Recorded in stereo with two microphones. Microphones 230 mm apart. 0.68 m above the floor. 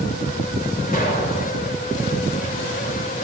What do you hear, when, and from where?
0.9 s an explosion: 40° left (ahead or behind), 2.5 m